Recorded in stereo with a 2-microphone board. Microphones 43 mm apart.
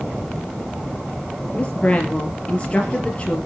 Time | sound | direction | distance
1.5 | a woman speaking | 25° left (ahead or behind) | 3.5 m